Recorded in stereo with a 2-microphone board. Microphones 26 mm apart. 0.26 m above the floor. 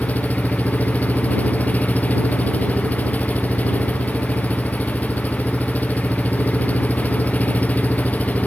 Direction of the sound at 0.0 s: 85° left.